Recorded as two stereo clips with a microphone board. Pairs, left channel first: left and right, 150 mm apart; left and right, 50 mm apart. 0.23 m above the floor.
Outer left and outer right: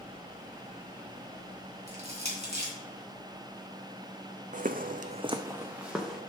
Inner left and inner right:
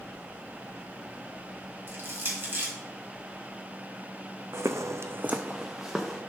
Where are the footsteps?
60° right (ahead or behind), 0.8 m; by 6.2 s centre (ahead or behind), 1.8 m.